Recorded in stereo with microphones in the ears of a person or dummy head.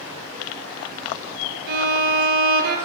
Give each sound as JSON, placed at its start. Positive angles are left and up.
{"t": 1.7, "sound": "a violin", "side_deg": -55, "distance_m": 2.5}